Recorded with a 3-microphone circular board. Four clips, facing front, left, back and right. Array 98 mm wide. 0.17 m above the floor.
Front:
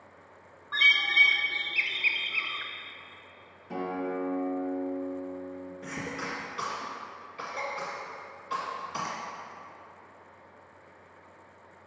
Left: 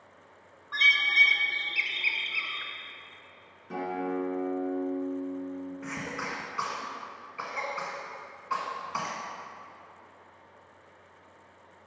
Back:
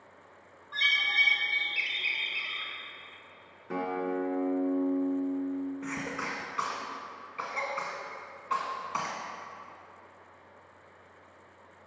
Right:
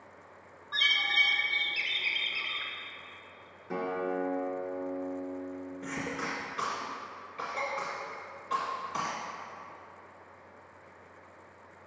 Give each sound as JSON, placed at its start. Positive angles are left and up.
{"t": 0.7, "sound": "a bird", "azimuth_deg": 15, "distance_m": 0.6}
{"t": 3.7, "sound": "a guitar", "azimuth_deg": -165, "distance_m": 1.5}
{"t": 5.8, "sound": "a cough", "azimuth_deg": 145, "distance_m": 1.2}